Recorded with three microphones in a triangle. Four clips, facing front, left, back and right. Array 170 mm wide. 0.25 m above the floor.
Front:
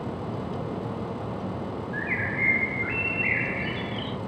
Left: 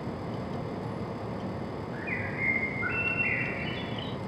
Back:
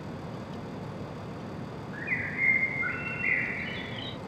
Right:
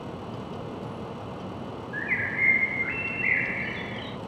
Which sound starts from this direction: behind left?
A bird, at 1.9 s.